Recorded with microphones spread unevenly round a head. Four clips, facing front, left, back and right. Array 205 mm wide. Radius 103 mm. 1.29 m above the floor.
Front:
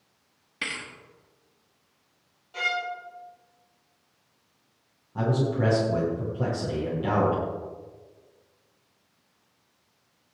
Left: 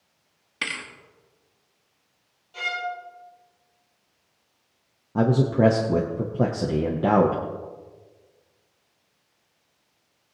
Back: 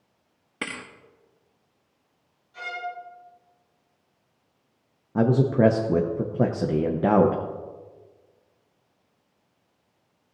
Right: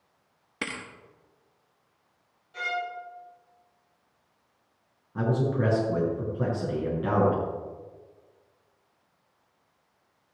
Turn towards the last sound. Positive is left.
turn(degrees=145)